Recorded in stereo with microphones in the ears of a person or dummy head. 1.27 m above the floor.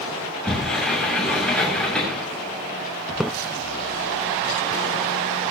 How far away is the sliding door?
About 7.5 m.